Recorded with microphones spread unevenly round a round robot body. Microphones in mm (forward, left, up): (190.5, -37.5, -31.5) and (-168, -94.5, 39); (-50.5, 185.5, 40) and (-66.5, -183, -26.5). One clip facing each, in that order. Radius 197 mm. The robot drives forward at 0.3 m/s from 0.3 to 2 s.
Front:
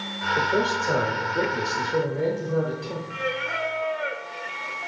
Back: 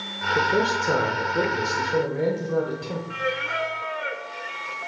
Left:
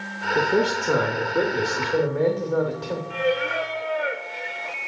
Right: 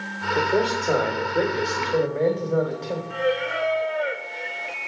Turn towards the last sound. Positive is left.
turn(degrees=170)